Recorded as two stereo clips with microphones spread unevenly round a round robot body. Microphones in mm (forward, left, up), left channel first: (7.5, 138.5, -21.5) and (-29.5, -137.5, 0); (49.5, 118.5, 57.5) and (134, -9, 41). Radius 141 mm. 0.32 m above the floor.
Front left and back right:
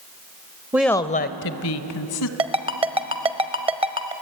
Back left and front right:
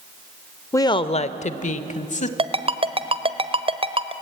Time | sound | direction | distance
0.7 | a woman speaking | 175° right | 0.9 m
2.4 | a ringtone | 25° right | 1.0 m